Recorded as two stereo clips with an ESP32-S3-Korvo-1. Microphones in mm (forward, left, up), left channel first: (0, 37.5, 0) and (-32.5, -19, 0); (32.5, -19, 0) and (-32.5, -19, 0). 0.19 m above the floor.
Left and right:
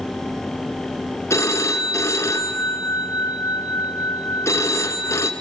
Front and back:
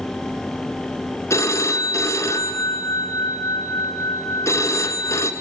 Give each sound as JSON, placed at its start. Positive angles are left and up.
{"t": 1.3, "sound": "a phone ringing", "azimuth_deg": 25, "distance_m": 1.5}